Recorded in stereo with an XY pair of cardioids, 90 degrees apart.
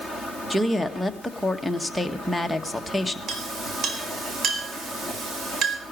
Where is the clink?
65° right, 4 m.